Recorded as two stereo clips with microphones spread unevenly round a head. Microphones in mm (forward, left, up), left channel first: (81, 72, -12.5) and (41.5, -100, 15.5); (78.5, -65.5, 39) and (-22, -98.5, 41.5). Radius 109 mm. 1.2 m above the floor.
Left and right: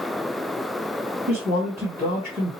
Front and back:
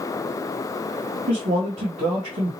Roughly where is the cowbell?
No cowbell in this recording.